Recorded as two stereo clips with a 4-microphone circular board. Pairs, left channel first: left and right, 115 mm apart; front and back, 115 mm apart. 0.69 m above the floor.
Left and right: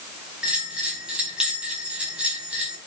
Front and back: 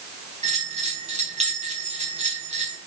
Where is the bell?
170° right, 4 m.